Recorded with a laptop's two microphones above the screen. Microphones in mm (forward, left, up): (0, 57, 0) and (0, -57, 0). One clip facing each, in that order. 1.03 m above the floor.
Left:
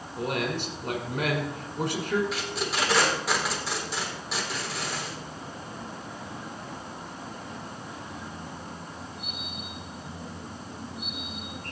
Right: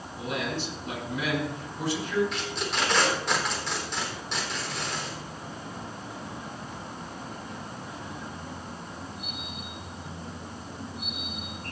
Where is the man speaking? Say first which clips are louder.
Left 2 dB; 50° left (ahead or behind), 5 m.